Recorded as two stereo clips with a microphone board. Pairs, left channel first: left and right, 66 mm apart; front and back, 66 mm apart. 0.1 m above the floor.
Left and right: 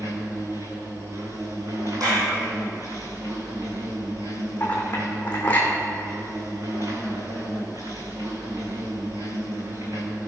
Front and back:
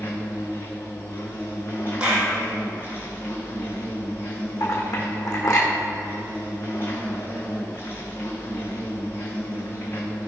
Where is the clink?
25° left, 3 m.